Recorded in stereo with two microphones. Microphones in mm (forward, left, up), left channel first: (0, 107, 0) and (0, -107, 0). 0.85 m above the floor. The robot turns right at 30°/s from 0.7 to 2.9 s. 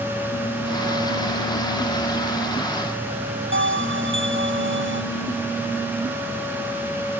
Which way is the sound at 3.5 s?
70° right (ahead or behind).